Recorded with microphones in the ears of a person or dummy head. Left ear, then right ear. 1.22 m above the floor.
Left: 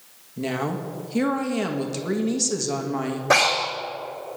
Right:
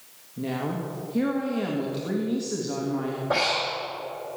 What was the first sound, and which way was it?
A woman speaking, 75° left (ahead or behind).